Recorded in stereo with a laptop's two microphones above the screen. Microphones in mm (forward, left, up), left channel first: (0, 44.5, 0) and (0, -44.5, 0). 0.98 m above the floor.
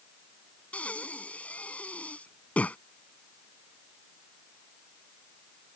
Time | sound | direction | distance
0.7 | breathing | 15° left (ahead or behind) | ?